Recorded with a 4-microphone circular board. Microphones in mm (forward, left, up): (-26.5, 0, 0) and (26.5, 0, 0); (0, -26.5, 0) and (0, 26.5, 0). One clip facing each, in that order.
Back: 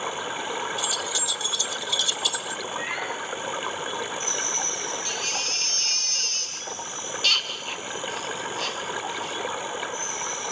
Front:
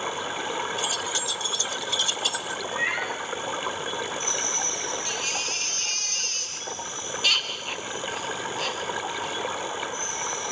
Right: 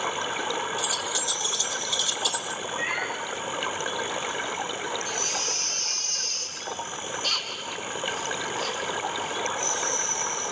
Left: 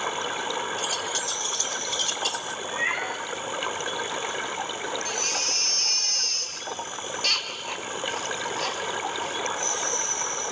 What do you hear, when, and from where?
0.8 s keys jangling: 50° left, 1.3 m
2.6 s a cat meowing: 35° left, 6 m
5.0 s a baby crying: 80° left, 2.5 m